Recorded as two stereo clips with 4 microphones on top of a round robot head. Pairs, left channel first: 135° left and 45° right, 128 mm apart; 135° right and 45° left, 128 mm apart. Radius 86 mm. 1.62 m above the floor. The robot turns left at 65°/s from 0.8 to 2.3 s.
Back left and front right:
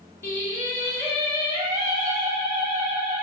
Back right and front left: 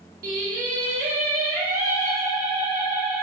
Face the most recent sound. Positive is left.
turn(degrees=-35)